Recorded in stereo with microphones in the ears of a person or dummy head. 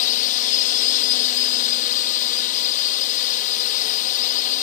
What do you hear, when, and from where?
0.0 s a drone: 45° left (ahead or behind)